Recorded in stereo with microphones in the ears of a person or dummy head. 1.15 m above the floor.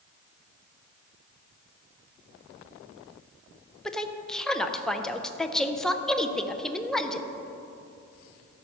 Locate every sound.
3.9 s a woman speaking: 5° left (ahead or behind), 0.6 m